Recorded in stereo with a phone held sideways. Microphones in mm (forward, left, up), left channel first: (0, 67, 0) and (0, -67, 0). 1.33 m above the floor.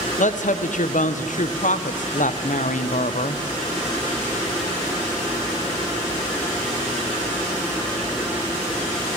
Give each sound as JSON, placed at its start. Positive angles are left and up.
{"t": 0.2, "sound": "a woman speaking", "side_deg": 70, "distance_m": 0.5}